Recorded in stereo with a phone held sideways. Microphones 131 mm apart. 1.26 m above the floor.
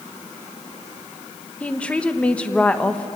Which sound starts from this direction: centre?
A woman speaking, at 1.6 s.